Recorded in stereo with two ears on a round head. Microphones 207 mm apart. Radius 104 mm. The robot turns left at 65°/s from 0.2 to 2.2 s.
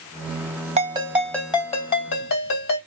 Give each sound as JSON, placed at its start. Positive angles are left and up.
{"t": 0.8, "sound": "a ringtone", "azimuth_deg": -150, "distance_m": 2.5}